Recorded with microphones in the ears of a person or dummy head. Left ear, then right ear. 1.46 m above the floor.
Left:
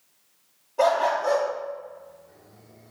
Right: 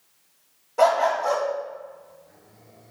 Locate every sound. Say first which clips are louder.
0.8 s a dog barking: right 2 dB; 45° right (ahead or behind), 1.2 m